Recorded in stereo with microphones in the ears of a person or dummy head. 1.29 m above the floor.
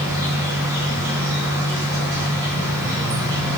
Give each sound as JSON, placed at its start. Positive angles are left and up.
{"t": 0.0, "sound": "an insect", "side_deg": -20, "distance_m": 2.0}